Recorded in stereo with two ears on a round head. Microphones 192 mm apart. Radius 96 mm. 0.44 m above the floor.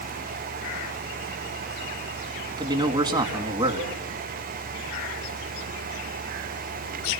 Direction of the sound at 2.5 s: 20° right (ahead or behind).